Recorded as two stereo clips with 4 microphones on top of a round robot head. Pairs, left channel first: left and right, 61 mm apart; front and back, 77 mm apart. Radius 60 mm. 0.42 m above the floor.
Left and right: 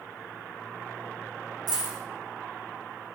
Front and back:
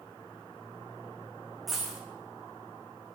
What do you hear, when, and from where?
1.7 s a dropped coin: 95° right, 1.2 m